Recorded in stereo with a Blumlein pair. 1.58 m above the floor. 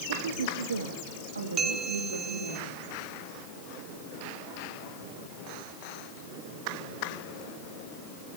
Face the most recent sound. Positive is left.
turn(degrees=-25)